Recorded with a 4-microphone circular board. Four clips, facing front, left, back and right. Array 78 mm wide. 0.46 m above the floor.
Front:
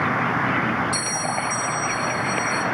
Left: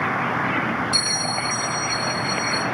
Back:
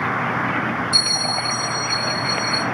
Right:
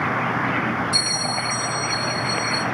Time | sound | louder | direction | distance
0.9 | a bell | even, even | 80° left | 3.5 m